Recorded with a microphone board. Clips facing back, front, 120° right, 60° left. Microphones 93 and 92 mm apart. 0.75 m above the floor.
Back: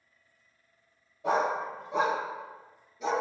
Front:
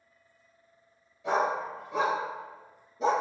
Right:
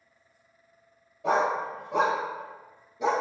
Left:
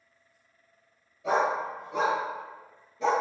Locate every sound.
1.2 s a dog barking: 140° right, 1.2 m; by 3.1 s 40° right, 0.6 m